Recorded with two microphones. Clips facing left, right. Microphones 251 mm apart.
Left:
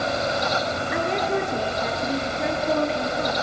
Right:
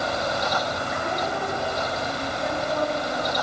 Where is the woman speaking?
70° left (ahead or behind), 6 m.